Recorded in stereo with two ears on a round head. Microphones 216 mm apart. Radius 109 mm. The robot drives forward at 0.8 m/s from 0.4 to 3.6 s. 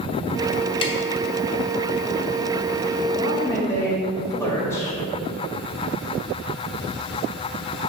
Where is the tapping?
25° left (ahead or behind), 0.9 m; by 1.0 s 20° left (ahead or behind), 0.9 m.